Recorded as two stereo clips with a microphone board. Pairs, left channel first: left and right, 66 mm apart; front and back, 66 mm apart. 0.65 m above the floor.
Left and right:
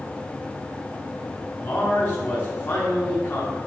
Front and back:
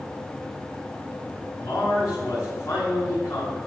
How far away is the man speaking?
About 5 m.